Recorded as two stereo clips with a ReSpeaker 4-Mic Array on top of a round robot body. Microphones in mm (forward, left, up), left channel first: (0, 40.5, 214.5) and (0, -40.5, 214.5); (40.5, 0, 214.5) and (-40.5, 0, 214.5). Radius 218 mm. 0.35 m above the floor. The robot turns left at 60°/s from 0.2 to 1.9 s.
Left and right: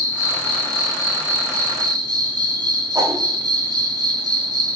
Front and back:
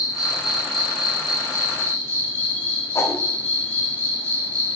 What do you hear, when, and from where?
0.0 s an insect: 40° left, 1.0 m; by 4.8 s 60° right, 1.0 m
3.0 s a whoosh: 55° right, 0.5 m